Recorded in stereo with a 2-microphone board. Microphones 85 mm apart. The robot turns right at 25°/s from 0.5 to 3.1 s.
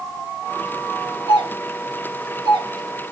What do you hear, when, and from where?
1.3 s a doorbell: 60° right (ahead or behind), 3 m; by 3.1 s 50° right (ahead or behind), 3 m